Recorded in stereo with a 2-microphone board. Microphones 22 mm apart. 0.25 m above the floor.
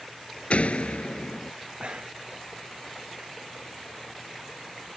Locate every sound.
0.5 s a door slam: 75° left (ahead or behind)
1.8 s breathing: 60° right (ahead or behind)